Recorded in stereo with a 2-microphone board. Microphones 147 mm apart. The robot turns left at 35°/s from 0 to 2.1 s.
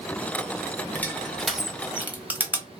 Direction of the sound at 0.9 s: 10° left (ahead or behind).